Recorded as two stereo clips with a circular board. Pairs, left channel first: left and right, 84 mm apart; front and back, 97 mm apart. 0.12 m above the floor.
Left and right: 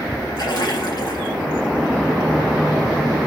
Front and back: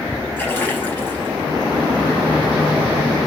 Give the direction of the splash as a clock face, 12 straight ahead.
10 o'clock.